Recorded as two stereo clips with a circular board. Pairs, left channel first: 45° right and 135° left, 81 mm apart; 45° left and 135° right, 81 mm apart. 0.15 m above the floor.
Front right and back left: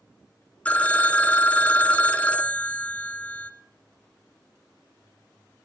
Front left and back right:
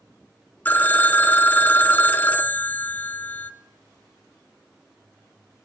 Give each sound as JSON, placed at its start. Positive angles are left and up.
{"t": 0.7, "sound": "a phone ringing", "azimuth_deg": 10, "distance_m": 0.7}